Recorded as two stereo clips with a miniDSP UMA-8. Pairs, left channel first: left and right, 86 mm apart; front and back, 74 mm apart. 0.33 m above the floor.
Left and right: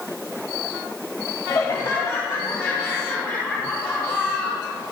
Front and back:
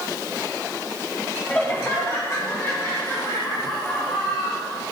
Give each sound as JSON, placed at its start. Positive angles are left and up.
{"t": 1.5, "sound": "laughter", "azimuth_deg": 55, "distance_m": 2.0}